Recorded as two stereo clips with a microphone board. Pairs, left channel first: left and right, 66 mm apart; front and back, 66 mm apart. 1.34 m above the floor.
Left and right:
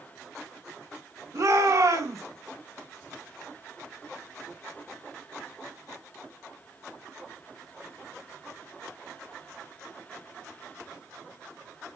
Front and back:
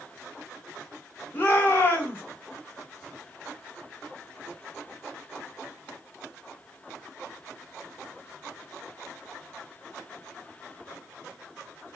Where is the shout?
60° right, 4.5 m.